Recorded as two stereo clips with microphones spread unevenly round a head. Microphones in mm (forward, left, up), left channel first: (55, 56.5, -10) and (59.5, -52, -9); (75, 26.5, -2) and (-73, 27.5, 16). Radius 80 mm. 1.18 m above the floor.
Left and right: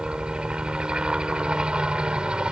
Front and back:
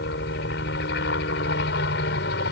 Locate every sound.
0.0 s a helicopter: 5° right